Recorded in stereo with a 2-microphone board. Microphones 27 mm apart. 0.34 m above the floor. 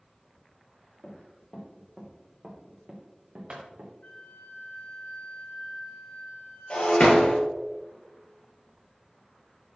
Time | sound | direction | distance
1.0 | running footsteps | 30° left (ahead or behind) | 3 m
4.0 | a flute | 75° left (ahead or behind) | 3.5 m
6.7 | breaking glass | 50° left (ahead or behind) | 3 m